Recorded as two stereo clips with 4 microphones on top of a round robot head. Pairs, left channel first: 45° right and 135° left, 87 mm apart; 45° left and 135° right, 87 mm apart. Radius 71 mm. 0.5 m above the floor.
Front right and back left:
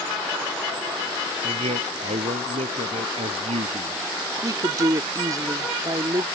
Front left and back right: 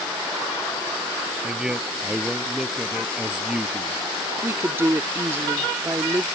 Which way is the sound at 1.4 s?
145° left.